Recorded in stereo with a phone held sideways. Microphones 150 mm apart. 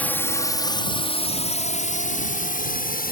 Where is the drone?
10° left (ahead or behind); by 3.1 s 65° left (ahead or behind).